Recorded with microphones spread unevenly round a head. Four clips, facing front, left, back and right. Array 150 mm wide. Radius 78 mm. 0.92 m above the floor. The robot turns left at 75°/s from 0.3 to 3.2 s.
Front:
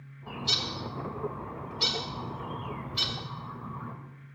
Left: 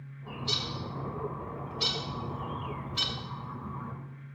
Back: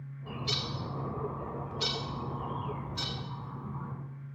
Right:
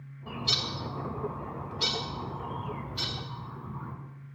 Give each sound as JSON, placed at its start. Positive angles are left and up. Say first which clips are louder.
{"t": 0.3, "sound": "a bird", "louder": "right 2 dB, front 2 dB", "azimuth_deg": -110, "distance_m": 2.5}